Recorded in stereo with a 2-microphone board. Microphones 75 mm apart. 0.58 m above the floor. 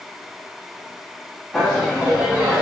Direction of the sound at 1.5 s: 5° left (ahead or behind).